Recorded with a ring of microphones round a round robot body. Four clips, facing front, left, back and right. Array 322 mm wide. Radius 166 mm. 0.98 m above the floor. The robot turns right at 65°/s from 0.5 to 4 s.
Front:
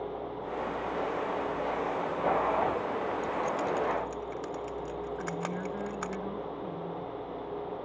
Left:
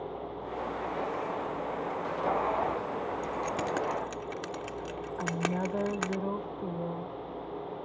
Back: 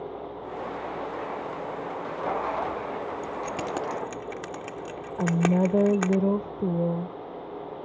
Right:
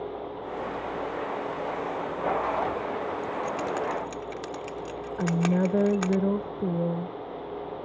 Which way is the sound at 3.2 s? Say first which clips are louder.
Right 3 dB, front 1 dB; 120° left.